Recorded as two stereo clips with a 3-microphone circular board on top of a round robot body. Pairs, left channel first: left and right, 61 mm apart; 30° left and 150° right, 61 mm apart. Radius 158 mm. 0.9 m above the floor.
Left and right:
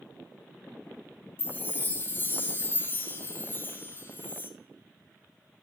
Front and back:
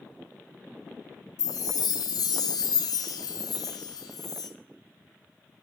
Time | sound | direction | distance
1.4 | a chime | 30° left | 0.6 m